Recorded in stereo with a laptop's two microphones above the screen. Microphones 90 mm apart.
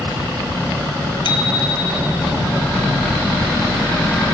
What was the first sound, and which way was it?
A bicycle bell, 65° left (ahead or behind).